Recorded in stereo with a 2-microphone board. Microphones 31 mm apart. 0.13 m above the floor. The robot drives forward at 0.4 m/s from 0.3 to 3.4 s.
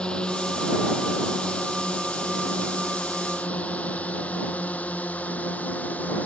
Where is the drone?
30° left (ahead or behind); by 6.3 s 55° left (ahead or behind).